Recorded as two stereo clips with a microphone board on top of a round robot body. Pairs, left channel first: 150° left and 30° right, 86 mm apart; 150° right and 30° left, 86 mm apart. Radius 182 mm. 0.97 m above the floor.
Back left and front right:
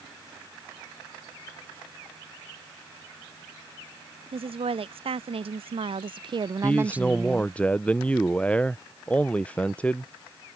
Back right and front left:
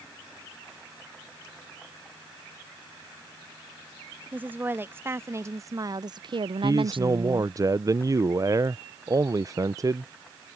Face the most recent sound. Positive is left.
turn(degrees=75)